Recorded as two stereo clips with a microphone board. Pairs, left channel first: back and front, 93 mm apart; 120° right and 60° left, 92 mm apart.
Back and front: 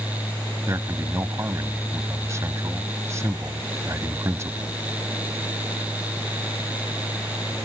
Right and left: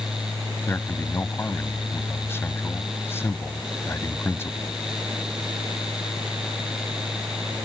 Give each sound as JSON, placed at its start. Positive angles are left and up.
{"t": 0.7, "sound": "a man speaking", "azimuth_deg": -55}